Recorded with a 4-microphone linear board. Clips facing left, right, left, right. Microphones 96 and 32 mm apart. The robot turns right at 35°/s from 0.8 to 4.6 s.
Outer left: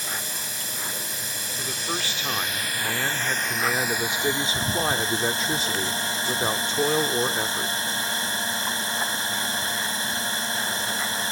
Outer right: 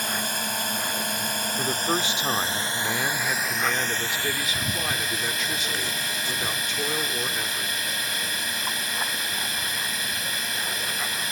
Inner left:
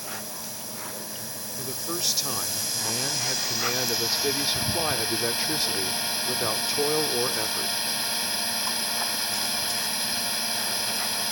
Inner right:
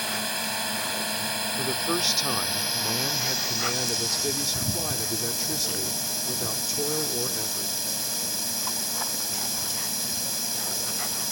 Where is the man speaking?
50° right; by 7.9 s 55° left.